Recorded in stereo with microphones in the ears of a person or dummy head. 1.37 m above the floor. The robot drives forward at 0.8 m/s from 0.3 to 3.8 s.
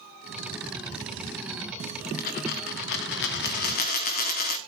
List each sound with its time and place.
2.2 s a dropped coin: 45° left (ahead or behind), 1.3 m